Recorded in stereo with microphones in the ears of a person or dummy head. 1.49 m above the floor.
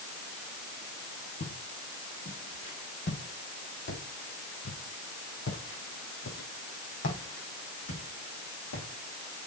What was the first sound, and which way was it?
Footsteps, 45° left (ahead or behind).